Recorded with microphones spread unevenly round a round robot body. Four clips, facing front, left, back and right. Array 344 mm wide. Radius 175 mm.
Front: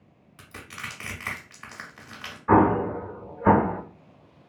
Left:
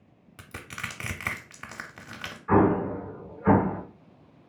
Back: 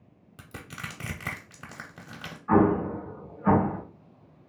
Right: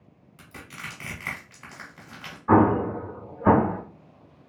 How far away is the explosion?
About 0.9 m.